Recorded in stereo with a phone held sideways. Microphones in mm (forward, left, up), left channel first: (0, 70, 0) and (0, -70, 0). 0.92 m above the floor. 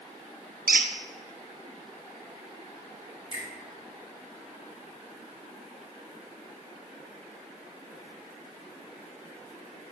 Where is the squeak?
85° right, 0.5 m.